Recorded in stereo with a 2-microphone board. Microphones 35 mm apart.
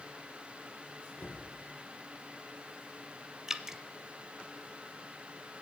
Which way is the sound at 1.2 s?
75° left (ahead or behind).